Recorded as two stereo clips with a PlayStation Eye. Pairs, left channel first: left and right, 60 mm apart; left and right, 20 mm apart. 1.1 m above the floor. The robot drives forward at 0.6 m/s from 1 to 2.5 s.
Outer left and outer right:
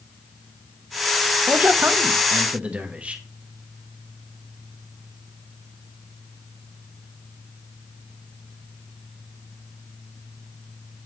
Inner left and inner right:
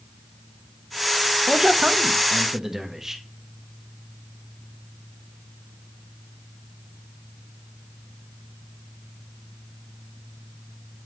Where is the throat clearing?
No throat clearing in this recording.